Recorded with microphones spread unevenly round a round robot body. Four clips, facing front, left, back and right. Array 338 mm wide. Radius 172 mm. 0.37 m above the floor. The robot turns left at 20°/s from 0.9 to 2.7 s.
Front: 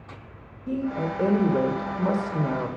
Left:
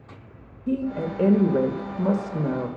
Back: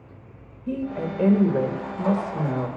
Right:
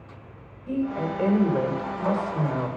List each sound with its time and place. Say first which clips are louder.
0.7 s a woman speaking: left 1 dB, front 1 dB; 110° left, 1.1 m; by 2.7 s 75° left, 1.1 m